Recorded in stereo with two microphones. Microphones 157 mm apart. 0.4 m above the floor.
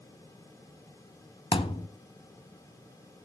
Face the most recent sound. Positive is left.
turn(degrees=35)  # may be behind; listen again after turning